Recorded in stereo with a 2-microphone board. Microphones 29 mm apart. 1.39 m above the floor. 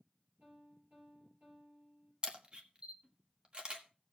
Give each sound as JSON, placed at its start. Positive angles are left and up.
{"t": 0.4, "sound": "a piano", "side_deg": -80, "distance_m": 8.0}
{"t": 2.2, "sound": "a camera shutter", "side_deg": -35, "distance_m": 1.3}